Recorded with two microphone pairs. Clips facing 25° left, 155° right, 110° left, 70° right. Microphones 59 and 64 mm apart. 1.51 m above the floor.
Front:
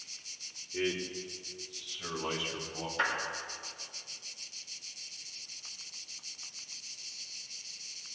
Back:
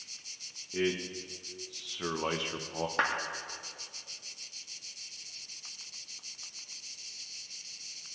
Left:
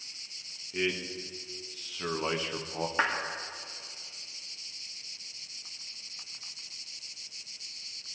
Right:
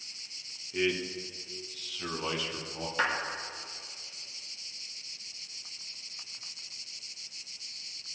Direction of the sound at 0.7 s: 170° right.